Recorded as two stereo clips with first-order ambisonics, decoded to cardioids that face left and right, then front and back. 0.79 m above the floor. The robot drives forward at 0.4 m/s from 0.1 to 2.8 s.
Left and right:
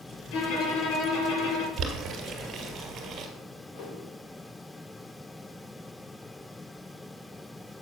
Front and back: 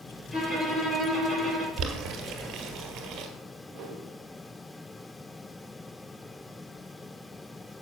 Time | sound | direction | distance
0.3 | a violin | 90° left | 4 m
1.8 | boiling | 150° right | 2 m
3.7 | a whoosh | 135° left | 3 m